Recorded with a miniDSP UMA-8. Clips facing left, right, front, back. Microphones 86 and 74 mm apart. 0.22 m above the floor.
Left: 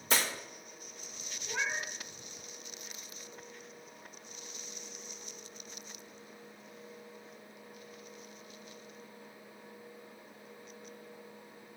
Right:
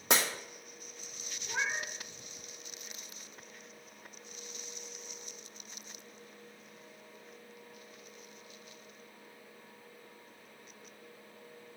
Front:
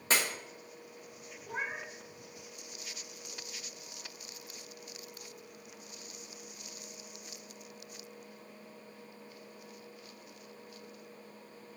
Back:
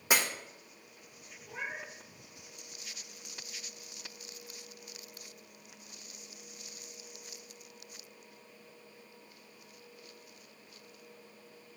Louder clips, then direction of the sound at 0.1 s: Right 2 dB, back 1 dB; 100° right.